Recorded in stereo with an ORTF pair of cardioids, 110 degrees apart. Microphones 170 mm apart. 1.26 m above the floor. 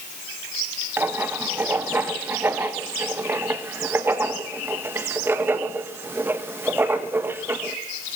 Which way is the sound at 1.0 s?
15° right.